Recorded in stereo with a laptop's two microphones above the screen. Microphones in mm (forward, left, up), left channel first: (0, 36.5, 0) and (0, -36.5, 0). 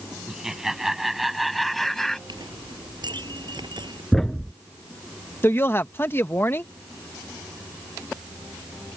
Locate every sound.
0.3 s laughter: 5° right (ahead or behind); by 2.2 s 5° left (ahead or behind)
2.3 s a clink: 85° right
4.1 s a thud: 5° left (ahead or behind)
5.4 s a woman speaking: 30° left (ahead or behind)